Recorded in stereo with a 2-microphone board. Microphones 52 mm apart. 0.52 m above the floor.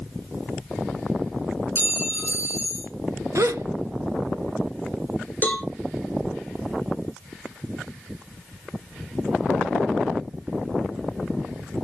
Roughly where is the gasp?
Right.